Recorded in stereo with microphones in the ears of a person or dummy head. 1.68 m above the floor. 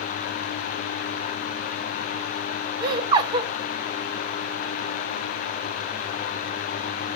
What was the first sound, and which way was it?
Laughter, 25° right (ahead or behind).